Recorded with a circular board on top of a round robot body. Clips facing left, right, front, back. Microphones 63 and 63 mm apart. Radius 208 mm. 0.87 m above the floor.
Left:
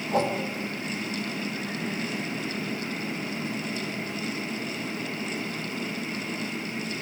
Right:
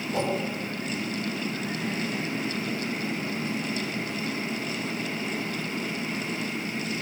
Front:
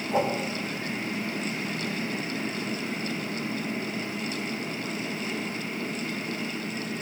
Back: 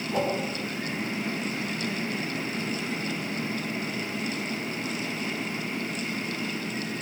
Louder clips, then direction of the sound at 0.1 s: Left 3 dB, front 2 dB; 60° left.